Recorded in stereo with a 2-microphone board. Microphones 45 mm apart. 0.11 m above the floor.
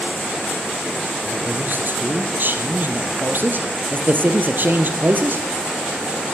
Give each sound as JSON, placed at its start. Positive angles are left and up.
{"t": 1.2, "sound": "a man speaking", "side_deg": -50, "distance_m": 2.5}